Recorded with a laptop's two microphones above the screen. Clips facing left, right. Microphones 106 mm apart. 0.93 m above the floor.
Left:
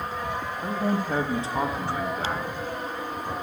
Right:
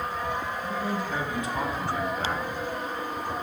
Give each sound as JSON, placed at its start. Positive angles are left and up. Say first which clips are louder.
{"t": 0.6, "sound": "a man speaking", "louder": "left 3 dB", "side_deg": 60, "distance_m": 0.8}